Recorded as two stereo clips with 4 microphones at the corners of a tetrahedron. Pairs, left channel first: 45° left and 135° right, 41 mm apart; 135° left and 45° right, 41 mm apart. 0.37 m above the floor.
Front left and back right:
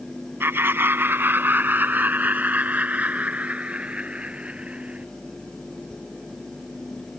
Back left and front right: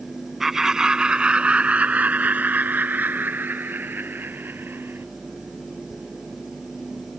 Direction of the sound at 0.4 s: 125° right.